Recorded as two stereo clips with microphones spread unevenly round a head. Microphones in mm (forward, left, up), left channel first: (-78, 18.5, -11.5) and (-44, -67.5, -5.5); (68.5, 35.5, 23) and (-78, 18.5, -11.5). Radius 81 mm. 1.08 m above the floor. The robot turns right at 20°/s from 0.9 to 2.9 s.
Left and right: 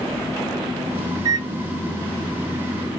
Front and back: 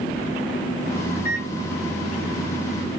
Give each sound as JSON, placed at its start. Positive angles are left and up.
{"t": 1.1, "sound": "a microwave", "azimuth_deg": -115, "distance_m": 0.6}